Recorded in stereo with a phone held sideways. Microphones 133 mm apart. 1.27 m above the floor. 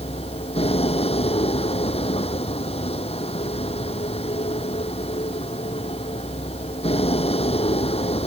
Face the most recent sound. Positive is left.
turn(degrees=45)  # may be behind; listen again after turning